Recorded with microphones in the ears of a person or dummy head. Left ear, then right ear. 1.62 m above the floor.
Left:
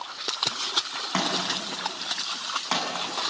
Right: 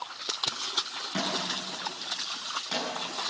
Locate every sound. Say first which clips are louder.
1.1 s a thud: left 4 dB; 50° left (ahead or behind), 7.5 m